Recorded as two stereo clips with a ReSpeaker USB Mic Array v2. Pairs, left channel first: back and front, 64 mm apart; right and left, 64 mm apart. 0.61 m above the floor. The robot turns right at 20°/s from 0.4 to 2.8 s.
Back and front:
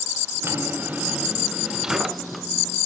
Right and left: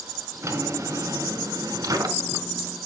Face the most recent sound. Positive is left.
turn(degrees=100)